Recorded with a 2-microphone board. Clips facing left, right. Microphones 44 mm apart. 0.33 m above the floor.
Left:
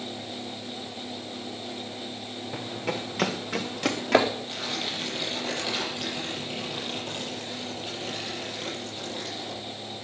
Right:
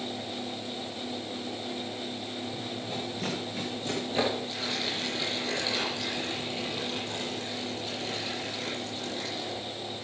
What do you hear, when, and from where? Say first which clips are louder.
2.5 s running footsteps: left 3 dB; 75° left (ahead or behind), 2.5 m; by 4.3 s 85° left, 3.5 m
4.5 s tearing paper: even; 35° left (ahead or behind), 9.5 m